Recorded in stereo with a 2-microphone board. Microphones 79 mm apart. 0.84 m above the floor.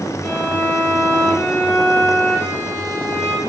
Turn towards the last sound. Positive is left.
turn(degrees=35)  # may be behind; listen again after turning